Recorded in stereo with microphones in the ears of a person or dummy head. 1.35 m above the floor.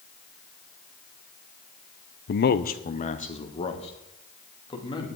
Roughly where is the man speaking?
Left.